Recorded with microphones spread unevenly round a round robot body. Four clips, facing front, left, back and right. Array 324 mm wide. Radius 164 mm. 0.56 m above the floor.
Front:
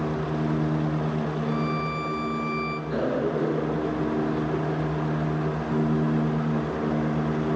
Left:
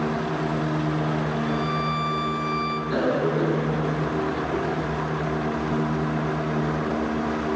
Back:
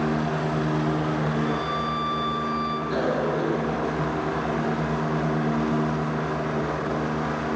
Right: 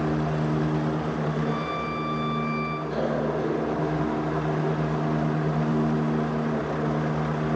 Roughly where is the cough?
Behind left.